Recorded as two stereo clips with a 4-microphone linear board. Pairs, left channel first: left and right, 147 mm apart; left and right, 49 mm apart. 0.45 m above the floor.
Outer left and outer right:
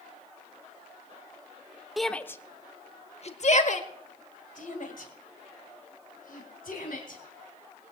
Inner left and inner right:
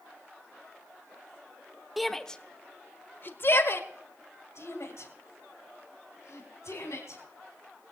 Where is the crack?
I don't hear a crack.